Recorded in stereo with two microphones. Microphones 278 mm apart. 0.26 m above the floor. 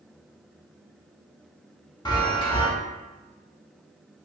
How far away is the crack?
I don't hear a crack.